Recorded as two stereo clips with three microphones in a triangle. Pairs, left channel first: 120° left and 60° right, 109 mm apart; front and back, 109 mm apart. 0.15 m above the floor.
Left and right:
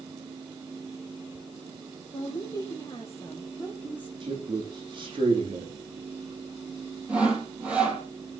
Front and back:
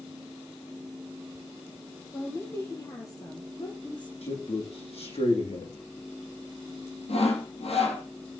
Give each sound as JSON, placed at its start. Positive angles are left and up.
{"t": 2.1, "sound": "a woman speaking", "azimuth_deg": 70, "distance_m": 5.5}
{"t": 4.2, "sound": "a man speaking", "azimuth_deg": -20, "distance_m": 7.0}
{"t": 7.1, "sound": "sawing", "azimuth_deg": 20, "distance_m": 5.5}